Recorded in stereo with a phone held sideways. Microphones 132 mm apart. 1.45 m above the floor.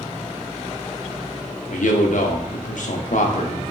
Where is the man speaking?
75° left (ahead or behind), 0.7 m.